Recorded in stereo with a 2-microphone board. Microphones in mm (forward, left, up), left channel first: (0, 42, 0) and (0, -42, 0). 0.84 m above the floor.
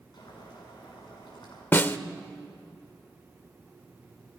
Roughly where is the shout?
I don't hear a shout.